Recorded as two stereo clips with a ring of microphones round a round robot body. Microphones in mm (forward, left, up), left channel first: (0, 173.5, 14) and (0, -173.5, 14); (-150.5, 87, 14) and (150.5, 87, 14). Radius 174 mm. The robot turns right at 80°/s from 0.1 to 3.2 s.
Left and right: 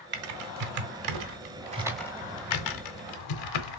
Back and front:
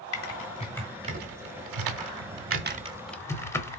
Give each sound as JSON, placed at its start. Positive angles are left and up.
{"t": 0.1, "sound": "typing on a keyboard", "azimuth_deg": -145, "distance_m": 1.3}